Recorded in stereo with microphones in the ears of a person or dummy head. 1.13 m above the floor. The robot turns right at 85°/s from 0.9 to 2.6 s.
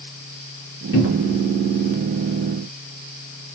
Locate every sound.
0.9 s a cupboard door: 55° left (ahead or behind), 1.0 m; by 1.4 s 30° left (ahead or behind), 1.0 m